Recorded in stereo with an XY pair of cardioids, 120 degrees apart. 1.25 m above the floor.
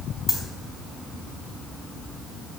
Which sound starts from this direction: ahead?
A dropped coin, at 0.3 s.